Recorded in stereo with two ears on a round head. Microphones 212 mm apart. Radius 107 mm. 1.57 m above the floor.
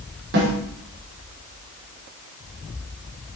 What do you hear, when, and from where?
0.3 s a snare drum: 60° right (ahead or behind), 6 m